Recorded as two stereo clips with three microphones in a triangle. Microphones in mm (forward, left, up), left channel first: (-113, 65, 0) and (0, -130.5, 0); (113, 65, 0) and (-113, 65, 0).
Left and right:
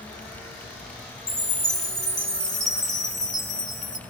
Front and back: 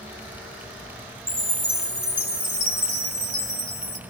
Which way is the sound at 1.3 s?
170° right.